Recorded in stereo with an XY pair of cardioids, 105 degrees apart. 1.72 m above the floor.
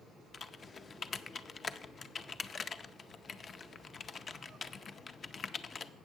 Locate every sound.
0.3 s typing on a keyboard: 40° left, 0.5 m